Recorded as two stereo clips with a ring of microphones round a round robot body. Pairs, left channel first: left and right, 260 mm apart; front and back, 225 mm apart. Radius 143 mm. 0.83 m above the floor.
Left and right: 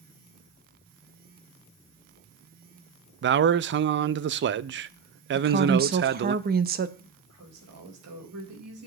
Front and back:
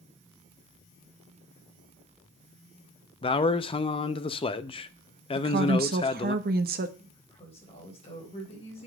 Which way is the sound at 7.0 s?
65° right.